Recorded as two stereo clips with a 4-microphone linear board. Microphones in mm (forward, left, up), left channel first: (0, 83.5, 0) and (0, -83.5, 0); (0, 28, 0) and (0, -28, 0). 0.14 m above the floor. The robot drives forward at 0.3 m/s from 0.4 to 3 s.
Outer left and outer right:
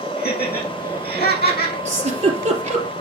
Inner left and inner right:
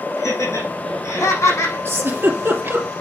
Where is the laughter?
75° left (ahead or behind), 6 m; by 1.8 s 70° left (ahead or behind), 6 m.